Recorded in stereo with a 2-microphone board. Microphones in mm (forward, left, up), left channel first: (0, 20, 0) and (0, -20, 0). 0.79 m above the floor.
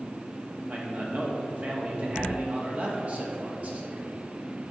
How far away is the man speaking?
About 1.5 m.